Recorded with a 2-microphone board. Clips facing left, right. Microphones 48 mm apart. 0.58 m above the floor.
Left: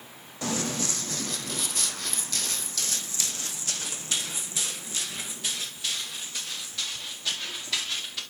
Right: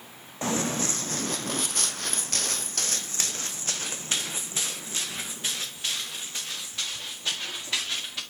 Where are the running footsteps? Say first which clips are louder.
Right 2 dB; 30° right (ahead or behind), 1.2 m; by 8.2 s 20° right (ahead or behind), 3.5 m.